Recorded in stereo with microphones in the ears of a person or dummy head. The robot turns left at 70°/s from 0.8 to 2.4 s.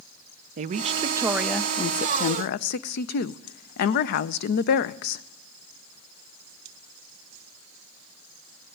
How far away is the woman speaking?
About 0.5 m.